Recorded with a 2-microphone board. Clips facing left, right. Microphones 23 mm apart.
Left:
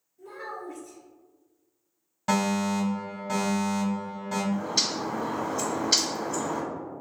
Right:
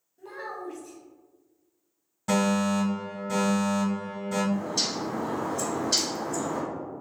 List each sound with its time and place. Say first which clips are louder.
0.2 s a child speaking: right 1 dB; 40° right (ahead or behind), 1.0 m
2.3 s a fire alarm: right 1 dB; 20° left (ahead or behind), 2.0 m
4.5 s a bird: left 1 dB; 30° left (ahead or behind), 0.8 m